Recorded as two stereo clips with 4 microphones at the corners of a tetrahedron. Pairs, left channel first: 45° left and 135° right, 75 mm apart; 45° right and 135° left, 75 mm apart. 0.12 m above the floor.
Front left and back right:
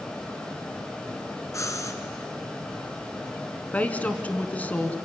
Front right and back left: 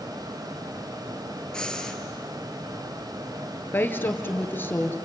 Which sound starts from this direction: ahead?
A woman speaking, at 3.7 s.